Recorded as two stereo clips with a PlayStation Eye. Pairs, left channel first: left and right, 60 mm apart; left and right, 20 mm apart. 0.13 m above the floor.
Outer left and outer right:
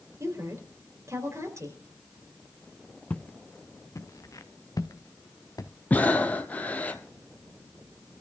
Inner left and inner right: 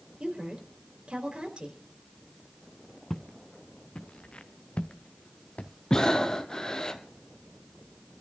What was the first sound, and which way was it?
A woman speaking, 55° right (ahead or behind).